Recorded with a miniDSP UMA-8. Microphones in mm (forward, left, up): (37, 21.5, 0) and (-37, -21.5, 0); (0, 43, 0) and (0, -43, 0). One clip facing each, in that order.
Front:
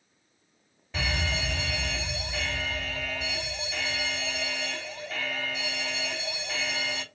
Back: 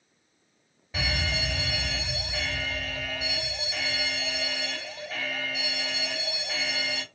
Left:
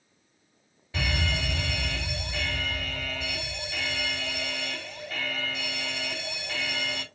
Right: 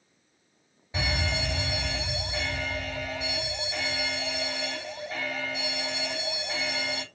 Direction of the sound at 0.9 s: 75° right.